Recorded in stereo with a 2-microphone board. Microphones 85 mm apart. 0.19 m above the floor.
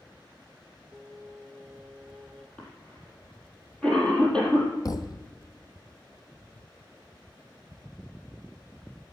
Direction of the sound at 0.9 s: 5° left (ahead or behind).